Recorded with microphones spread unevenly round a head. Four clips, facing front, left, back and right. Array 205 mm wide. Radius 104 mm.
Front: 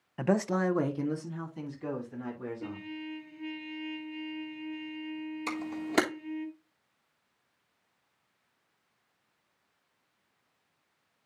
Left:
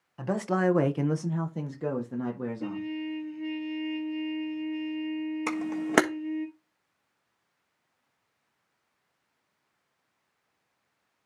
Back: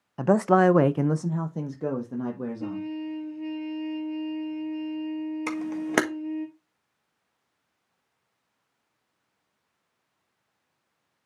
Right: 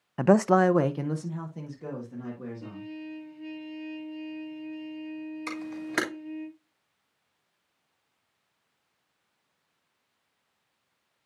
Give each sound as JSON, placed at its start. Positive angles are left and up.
{"t": 0.2, "sound": "a man speaking", "azimuth_deg": -105, "distance_m": 0.6}
{"t": 2.6, "sound": "a trumpet", "azimuth_deg": 140, "distance_m": 4.0}
{"t": 5.5, "sound": "a camera shutter", "azimuth_deg": 120, "distance_m": 1.5}